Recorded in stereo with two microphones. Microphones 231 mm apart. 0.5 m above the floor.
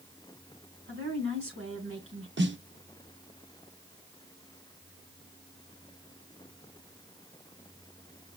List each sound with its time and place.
0.9 s a woman speaking: 65° right (ahead or behind), 3.5 m
2.4 s a snare drum: 55° right (ahead or behind), 0.6 m